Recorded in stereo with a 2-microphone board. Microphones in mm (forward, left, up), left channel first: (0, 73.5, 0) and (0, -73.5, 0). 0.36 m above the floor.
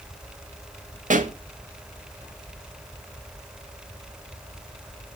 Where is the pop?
60° right (ahead or behind), 0.6 m.